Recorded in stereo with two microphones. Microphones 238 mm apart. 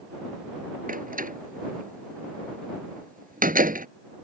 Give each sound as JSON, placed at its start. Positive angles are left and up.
{"t": 0.9, "sound": "a door slam", "side_deg": -35}